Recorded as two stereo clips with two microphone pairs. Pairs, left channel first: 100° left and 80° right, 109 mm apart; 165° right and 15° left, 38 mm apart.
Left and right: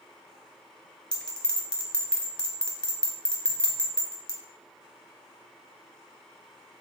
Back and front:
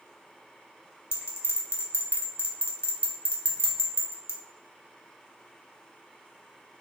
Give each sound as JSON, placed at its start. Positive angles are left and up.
{"t": 1.1, "sound": "a bell", "azimuth_deg": -175, "distance_m": 0.6}